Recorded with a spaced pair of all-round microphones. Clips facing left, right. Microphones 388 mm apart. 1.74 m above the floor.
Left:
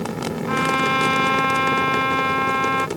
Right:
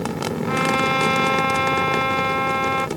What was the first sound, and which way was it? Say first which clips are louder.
A trumpet: right 1 dB; 20° left (ahead or behind).